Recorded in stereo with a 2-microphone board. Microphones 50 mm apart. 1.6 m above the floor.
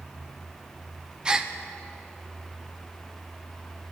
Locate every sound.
1.2 s a gasp: 15° right (ahead or behind), 0.9 m